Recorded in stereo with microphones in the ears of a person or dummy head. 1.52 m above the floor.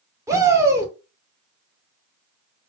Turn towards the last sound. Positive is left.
turn(degrees=-15)  # may be behind; listen again after turning